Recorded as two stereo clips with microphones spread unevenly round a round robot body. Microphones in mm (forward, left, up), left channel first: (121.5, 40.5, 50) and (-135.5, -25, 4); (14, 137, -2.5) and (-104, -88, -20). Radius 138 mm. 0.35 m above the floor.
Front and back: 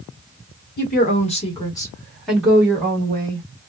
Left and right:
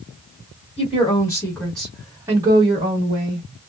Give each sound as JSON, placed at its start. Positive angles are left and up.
{"t": 0.8, "sound": "a woman speaking", "azimuth_deg": 20, "distance_m": 1.4}